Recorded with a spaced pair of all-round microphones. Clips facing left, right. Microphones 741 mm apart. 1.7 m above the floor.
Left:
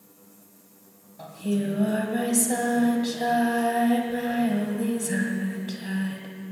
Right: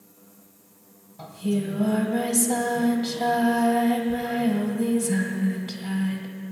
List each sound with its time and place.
1.2 s singing: 35° right (ahead or behind), 1.8 m